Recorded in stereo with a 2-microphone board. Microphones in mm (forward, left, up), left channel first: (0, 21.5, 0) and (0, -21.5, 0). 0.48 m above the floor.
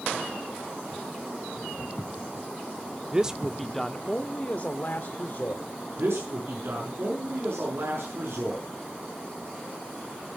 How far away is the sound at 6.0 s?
About 6 m.